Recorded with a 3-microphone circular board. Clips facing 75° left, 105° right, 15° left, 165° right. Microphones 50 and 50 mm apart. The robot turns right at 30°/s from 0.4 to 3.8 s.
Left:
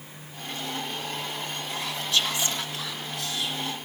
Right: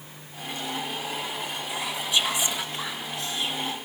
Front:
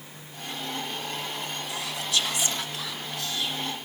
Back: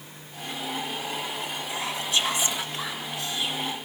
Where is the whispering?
175° right, 1.0 m; by 3.8 s 110° right, 1.0 m.